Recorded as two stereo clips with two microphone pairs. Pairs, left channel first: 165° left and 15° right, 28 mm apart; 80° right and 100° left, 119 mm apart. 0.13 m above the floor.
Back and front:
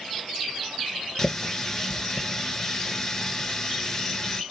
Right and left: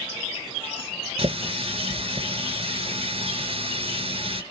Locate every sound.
1.2 s a running tap: 105° left, 1.4 m